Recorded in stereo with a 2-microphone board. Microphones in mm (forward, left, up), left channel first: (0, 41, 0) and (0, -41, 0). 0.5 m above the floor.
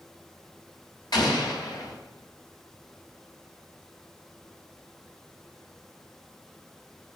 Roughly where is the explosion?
Left.